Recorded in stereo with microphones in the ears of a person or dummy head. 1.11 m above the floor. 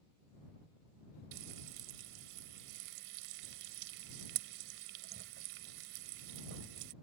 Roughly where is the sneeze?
No sneeze in this recording.